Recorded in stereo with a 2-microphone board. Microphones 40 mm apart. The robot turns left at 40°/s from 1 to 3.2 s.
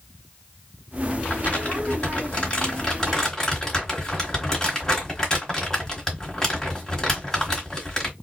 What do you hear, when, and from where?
1.2 s crumpling: 35° left (ahead or behind), 1.6 m; by 8.1 s 15° left (ahead or behind), 1.6 m